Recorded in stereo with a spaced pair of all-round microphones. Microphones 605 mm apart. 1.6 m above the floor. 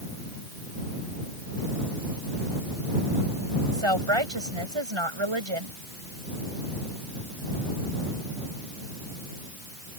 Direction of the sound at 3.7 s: 50° right (ahead or behind).